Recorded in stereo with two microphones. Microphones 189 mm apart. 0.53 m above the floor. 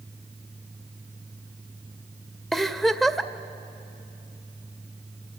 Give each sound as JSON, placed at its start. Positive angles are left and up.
{"t": 2.5, "sound": "a giggle", "side_deg": 0, "distance_m": 0.5}